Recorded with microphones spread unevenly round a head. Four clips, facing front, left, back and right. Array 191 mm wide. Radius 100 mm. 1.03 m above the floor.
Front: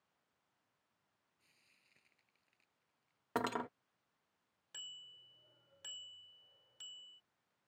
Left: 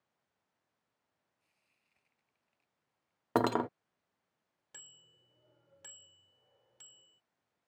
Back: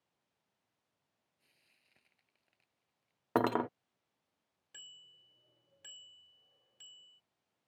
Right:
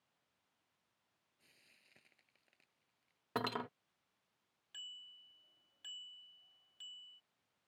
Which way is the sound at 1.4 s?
100° right.